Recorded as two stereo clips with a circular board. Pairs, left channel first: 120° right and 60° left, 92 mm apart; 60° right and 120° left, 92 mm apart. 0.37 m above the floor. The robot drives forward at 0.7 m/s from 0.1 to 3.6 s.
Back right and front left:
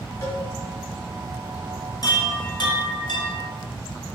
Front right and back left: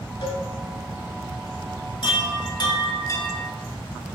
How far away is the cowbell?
About 2.5 m.